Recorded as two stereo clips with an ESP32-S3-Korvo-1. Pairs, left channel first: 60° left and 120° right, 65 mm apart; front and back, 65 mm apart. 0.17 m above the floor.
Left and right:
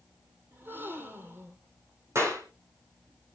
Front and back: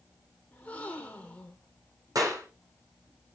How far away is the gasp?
About 2.5 m.